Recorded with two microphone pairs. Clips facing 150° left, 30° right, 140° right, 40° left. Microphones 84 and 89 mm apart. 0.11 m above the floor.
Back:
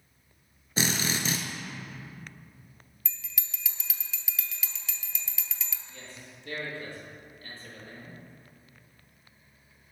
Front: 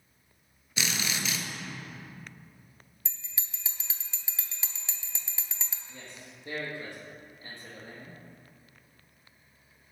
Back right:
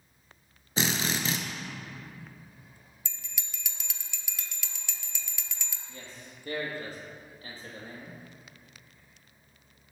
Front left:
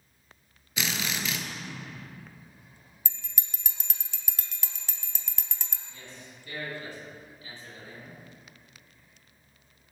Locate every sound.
0.8 s a drill: straight behind, 1.1 m
3.0 s a bell: 15° left, 0.7 m
5.9 s a man speaking: 100° right, 3 m